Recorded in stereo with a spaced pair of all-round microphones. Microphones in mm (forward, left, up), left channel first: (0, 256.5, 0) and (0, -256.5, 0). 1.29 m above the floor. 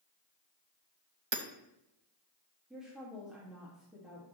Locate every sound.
1.3 s hammering: 60° right (ahead or behind), 0.8 m
2.7 s a woman speaking: centre (ahead or behind), 1.8 m